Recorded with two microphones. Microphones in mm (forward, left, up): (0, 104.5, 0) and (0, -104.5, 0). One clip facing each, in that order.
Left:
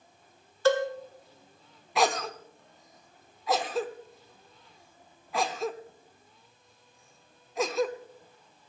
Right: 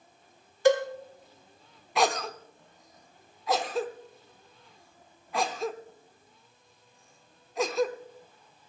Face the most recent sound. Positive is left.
turn(degrees=0)  # may be behind; listen again after turning